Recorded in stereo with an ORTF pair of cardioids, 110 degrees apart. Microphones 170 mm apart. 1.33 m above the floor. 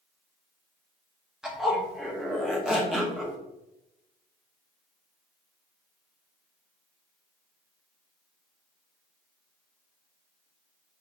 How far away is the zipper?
About 2.5 m.